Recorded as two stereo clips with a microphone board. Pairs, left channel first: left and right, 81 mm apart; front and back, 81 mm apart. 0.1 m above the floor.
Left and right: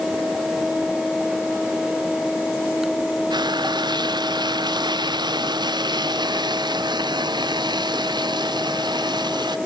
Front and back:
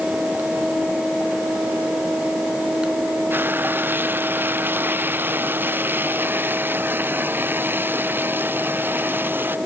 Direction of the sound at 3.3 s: 115° right.